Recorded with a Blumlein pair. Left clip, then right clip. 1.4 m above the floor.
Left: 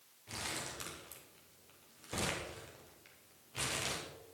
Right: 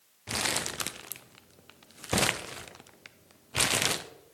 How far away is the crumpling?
About 0.6 m.